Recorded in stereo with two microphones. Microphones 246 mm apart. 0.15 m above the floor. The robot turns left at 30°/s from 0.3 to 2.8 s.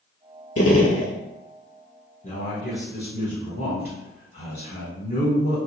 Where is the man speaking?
25° left (ahead or behind), 1.3 m; by 5.6 s 30° left (ahead or behind), 1.3 m.